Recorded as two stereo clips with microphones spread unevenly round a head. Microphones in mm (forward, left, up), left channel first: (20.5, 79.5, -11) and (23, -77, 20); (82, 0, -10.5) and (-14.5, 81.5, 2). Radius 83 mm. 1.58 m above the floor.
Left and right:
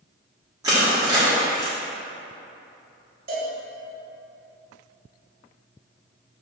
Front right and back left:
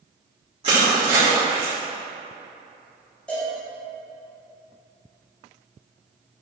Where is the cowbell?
125° right, 3 m.